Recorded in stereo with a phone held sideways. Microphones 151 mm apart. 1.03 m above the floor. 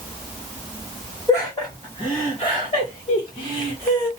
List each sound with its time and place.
1.3 s laughter: 20° left (ahead or behind), 1.1 m; by 4.1 s 40° left (ahead or behind), 1.5 m